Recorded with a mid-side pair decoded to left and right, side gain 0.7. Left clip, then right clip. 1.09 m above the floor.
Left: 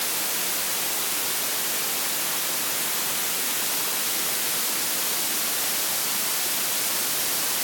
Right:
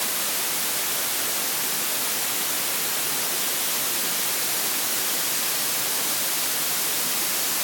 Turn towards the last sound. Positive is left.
No sound to turn to.